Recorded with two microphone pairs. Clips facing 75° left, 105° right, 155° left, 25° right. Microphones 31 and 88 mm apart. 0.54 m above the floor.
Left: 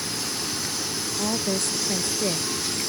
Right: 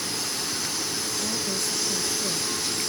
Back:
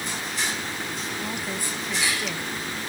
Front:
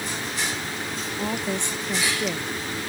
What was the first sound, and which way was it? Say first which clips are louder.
A woman speaking: left 6 dB, front 7 dB; 40° left.